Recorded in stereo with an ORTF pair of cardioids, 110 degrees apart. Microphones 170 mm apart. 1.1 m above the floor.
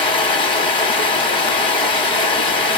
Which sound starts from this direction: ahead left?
Running water, at 0.0 s.